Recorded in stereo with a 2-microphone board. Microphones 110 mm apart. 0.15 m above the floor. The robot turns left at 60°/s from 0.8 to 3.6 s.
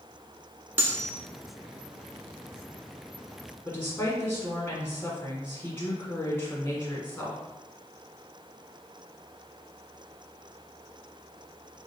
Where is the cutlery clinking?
20° right (ahead or behind), 0.8 m; by 1.1 s 30° right (ahead or behind), 0.8 m.